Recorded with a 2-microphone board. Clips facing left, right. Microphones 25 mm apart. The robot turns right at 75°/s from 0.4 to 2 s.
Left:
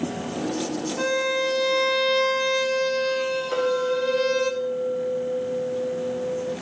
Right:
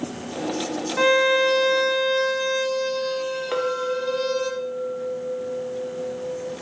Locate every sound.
1.0 s a violin: 65° right, 0.6 m; by 4.5 s 10° left, 0.6 m
3.5 s a clink: 30° right (ahead or behind), 0.8 m